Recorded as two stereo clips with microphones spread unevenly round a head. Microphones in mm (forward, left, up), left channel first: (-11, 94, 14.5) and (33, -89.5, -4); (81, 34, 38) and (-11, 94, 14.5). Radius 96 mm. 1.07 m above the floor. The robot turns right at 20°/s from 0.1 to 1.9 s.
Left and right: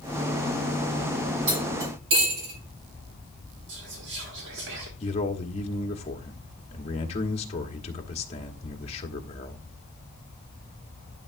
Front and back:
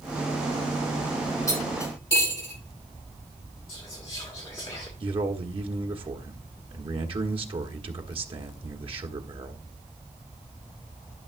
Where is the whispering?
90° right, 1.6 m.